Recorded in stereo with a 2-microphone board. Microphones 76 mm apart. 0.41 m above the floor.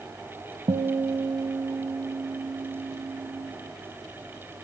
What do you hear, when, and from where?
0.7 s a guitar: 70° right (ahead or behind), 0.5 m